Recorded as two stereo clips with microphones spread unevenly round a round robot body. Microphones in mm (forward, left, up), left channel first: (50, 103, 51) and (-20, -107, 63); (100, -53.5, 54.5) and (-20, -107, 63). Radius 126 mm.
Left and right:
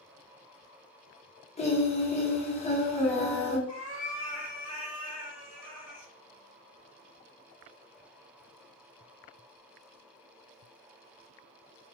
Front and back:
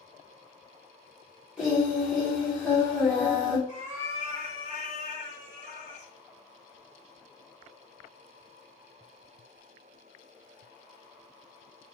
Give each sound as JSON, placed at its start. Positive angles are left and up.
{"t": 1.6, "sound": "singing", "azimuth_deg": 115, "distance_m": 0.9}
{"t": 3.7, "sound": "a cat meowing", "azimuth_deg": 165, "distance_m": 1.0}